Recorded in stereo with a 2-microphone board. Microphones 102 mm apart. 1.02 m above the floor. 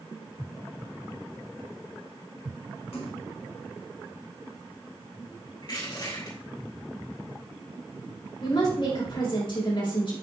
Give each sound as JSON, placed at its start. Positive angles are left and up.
{"t": 2.9, "sound": "a splash", "side_deg": 70, "distance_m": 2.0}
{"t": 5.6, "sound": "crushing", "side_deg": 50, "distance_m": 4.5}
{"t": 8.4, "sound": "a woman speaking", "side_deg": 55, "distance_m": 4.0}